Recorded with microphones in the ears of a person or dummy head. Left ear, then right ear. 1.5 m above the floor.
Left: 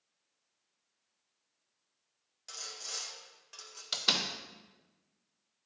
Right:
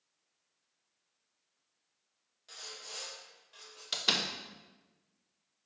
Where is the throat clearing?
I don't hear throat clearing.